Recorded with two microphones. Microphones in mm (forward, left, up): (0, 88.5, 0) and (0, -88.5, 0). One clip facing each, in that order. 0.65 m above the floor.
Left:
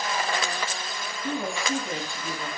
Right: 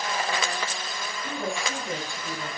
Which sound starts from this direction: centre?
A woman speaking, at 1.2 s.